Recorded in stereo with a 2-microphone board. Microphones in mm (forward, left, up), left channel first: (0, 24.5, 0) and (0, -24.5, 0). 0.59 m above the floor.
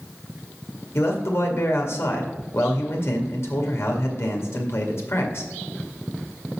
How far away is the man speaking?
About 1.9 m.